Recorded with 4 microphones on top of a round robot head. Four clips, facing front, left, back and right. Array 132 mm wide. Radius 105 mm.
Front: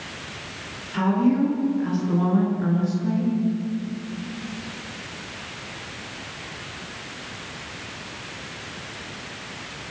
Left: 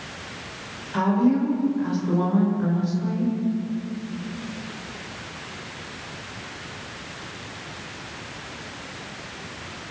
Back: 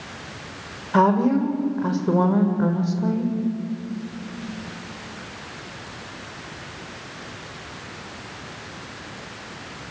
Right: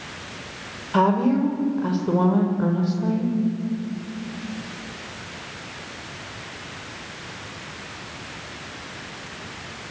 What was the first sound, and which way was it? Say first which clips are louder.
A woman speaking: right 1 dB, back 3 dB; 150° right.